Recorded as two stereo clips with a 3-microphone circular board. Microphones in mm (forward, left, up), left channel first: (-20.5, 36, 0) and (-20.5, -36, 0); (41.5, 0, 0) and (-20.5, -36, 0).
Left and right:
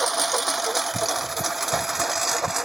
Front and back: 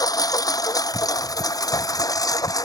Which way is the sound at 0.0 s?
Straight ahead.